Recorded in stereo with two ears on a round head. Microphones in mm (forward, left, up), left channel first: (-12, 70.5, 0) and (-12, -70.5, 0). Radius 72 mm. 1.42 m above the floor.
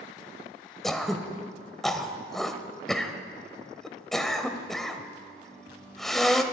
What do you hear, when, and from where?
0.8 s throat clearing: centre (ahead or behind), 1.3 m